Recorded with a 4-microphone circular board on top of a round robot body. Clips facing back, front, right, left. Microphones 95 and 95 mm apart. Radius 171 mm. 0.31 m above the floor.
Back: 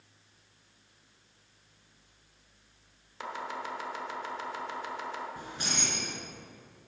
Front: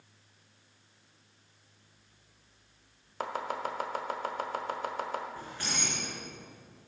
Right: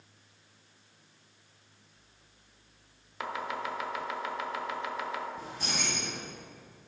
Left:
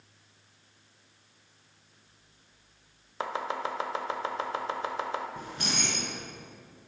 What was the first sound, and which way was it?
Chopping, 35° left.